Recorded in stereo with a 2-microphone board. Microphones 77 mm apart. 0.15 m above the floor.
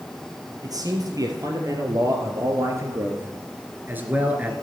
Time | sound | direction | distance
0.6 | a man speaking | 50° right (ahead or behind) | 3.5 m